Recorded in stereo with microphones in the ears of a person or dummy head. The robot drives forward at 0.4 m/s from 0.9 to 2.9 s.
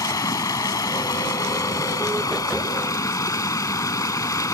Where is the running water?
20° left (ahead or behind).